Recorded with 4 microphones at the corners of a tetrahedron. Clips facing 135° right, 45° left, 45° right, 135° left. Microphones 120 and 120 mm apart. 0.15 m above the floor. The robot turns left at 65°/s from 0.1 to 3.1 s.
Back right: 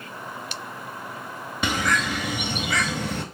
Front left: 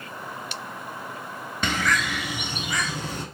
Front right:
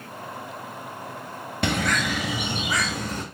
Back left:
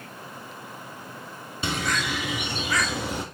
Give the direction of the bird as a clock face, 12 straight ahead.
2 o'clock.